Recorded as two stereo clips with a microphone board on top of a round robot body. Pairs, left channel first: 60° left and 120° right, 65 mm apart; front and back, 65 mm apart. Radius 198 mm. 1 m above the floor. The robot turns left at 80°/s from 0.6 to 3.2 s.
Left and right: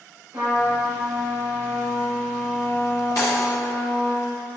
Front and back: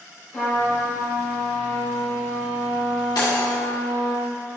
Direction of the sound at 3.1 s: 15° left.